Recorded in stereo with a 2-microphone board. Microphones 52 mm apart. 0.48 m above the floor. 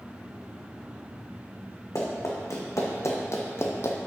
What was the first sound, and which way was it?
Running footsteps, 70° left (ahead or behind).